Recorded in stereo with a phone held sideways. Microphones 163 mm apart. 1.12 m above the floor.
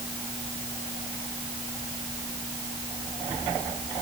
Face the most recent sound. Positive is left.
No sound to turn to.